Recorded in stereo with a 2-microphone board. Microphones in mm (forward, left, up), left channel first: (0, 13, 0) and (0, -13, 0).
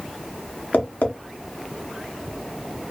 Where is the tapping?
80° left, 0.7 m.